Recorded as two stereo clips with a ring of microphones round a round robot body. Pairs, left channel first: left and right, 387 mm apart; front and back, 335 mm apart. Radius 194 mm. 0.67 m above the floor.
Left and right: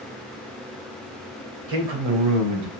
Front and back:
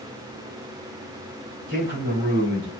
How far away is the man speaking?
About 2.5 m.